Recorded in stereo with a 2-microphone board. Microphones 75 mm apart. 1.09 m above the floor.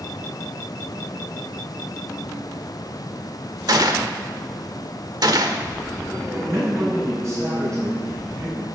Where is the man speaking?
40° right (ahead or behind), 7 m.